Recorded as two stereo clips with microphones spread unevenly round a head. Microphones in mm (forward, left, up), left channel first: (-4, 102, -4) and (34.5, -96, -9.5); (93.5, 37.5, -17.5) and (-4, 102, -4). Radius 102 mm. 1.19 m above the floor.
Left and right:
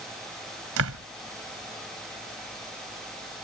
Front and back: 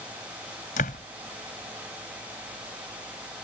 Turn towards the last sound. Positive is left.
turn(degrees=-65)